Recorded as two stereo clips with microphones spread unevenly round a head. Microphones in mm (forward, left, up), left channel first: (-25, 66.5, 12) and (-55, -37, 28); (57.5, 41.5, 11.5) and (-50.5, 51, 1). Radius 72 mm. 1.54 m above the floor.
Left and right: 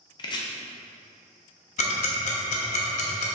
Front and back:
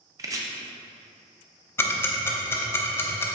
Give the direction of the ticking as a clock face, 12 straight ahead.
10 o'clock.